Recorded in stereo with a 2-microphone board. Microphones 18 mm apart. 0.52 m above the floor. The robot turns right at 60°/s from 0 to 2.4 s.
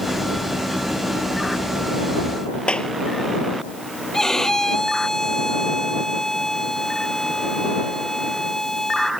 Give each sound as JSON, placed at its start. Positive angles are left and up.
{"t": 2.7, "sound": "a clap", "side_deg": 80}
{"t": 4.1, "sound": "a violin", "side_deg": 30}